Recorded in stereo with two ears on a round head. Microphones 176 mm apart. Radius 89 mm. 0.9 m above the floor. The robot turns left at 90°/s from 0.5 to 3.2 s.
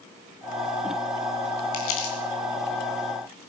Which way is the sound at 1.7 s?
85° left.